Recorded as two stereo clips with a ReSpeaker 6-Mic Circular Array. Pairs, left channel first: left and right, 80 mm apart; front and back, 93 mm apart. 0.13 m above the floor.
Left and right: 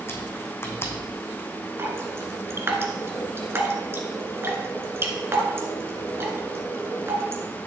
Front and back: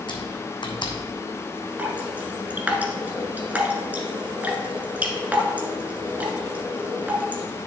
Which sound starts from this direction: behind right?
Dripping, at 1.8 s.